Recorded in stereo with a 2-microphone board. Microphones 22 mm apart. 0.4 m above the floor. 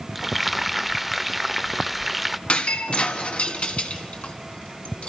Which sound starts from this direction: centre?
Frying, at 0.1 s.